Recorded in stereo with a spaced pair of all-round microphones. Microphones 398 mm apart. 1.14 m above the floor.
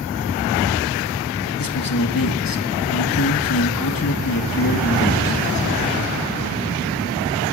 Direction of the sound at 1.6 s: 55° left (ahead or behind).